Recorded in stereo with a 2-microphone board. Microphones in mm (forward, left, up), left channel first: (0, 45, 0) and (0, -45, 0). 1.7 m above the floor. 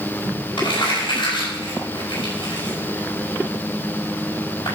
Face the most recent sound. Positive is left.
turn(degrees=80)